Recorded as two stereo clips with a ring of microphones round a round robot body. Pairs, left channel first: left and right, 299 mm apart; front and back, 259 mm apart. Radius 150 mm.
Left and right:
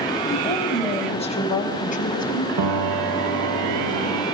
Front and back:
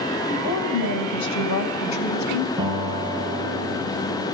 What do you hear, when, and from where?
0.3 s a woman speaking: 15° left, 5 m; by 2.5 s 25° left, 5 m
2.6 s a piano: 100° right, 2 m